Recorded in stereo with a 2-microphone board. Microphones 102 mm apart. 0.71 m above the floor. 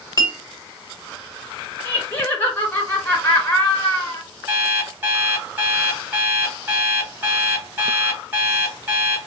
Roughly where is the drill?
I don't hear a drill.